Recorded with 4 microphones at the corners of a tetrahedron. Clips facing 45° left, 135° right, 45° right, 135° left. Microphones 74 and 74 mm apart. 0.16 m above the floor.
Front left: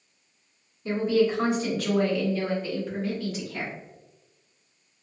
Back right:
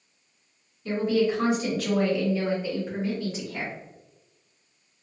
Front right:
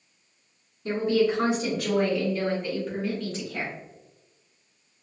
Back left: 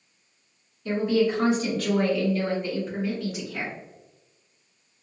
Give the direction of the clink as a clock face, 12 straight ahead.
No clink in this recording.